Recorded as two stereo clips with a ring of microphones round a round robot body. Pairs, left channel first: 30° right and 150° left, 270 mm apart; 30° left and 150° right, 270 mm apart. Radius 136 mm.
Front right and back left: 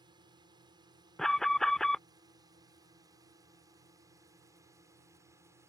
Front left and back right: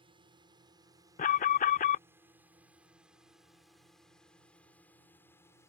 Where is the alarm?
55° left.